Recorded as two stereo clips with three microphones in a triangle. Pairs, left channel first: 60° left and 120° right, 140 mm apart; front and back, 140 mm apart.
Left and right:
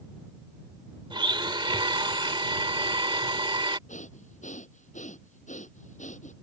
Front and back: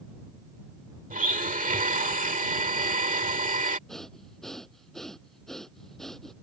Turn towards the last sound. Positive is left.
turn(degrees=85)